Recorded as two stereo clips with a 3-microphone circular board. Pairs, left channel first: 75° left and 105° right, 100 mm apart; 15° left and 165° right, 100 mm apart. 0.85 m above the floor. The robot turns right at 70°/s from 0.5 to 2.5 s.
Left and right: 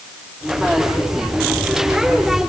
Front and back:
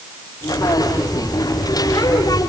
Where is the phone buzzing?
No phone buzzing in this recording.